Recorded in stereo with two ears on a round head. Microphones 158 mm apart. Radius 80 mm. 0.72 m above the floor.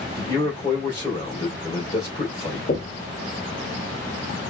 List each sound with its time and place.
0.2 s a man speaking: 20° left (ahead or behind), 3 m
2.7 s knocking: 40° left (ahead or behind), 1.7 m